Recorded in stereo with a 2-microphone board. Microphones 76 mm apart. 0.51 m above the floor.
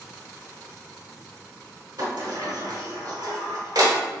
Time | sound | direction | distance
2.0 | a sliding door | 65° right (ahead or behind) | 0.9 m